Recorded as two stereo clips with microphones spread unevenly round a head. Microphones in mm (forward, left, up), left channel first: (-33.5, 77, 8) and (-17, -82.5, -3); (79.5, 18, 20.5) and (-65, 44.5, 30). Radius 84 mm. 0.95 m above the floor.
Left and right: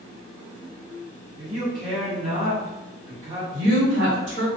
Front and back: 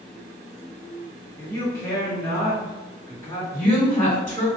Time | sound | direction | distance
1.4 | a man speaking | 70° right | 1.2 m
3.5 | a woman speaking | 80° right | 1.5 m